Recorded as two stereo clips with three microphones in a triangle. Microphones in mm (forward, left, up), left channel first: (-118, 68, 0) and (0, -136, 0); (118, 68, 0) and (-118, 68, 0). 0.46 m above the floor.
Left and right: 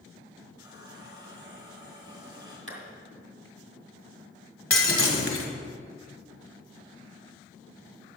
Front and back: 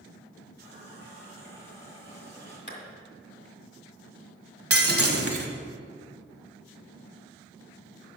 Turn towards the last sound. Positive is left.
turn(degrees=155)